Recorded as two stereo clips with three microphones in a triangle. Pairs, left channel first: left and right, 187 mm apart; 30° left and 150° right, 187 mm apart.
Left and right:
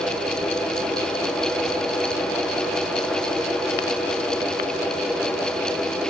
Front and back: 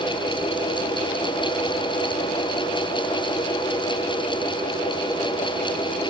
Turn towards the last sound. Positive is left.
No sound to turn to.